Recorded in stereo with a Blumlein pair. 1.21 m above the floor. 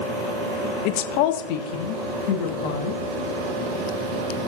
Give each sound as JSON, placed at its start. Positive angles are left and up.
{"t": 0.8, "sound": "a woman speaking", "azimuth_deg": 45, "distance_m": 0.8}